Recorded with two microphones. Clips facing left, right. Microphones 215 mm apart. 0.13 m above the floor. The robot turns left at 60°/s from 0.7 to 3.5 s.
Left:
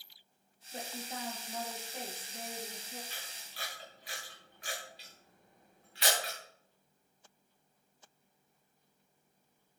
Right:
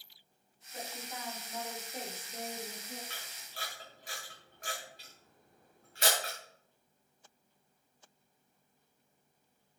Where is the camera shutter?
70° right (ahead or behind), 8 m; by 6.3 s 45° right (ahead or behind), 8 m.